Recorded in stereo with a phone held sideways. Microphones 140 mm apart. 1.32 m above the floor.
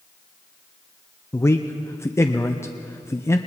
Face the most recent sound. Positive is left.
turn(degrees=20)  # may be behind; listen again after turning